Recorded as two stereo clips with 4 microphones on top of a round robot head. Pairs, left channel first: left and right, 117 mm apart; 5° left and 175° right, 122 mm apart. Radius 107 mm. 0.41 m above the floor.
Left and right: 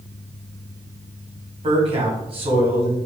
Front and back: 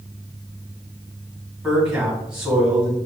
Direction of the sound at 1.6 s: 95° right.